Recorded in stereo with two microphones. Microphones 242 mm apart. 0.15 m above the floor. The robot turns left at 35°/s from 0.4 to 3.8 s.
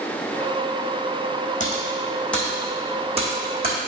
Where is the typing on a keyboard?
30° left (ahead or behind), 2 m; by 3.8 s 45° right (ahead or behind), 2 m.